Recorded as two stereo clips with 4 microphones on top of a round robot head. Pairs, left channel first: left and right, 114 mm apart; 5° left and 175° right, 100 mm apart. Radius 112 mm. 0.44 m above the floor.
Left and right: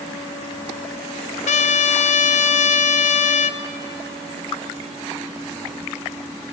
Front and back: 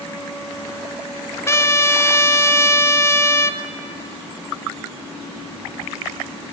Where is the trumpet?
70° left, 0.8 m.